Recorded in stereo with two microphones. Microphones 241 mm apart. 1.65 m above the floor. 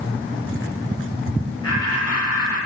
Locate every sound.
1.6 s laughter: 80° left, 8 m